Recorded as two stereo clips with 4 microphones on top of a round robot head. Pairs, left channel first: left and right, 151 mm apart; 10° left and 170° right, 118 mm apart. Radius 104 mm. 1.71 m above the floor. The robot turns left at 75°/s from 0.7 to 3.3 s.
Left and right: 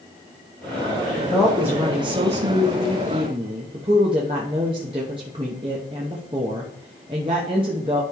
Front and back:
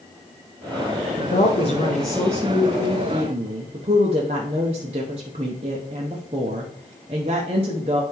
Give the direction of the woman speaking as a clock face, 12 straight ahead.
11 o'clock.